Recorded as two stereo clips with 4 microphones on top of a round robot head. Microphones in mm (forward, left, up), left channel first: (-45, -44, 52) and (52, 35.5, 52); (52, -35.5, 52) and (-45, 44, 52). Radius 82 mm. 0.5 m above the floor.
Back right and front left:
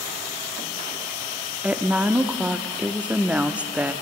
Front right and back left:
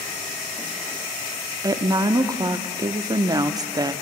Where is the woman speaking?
110° left, 0.7 m.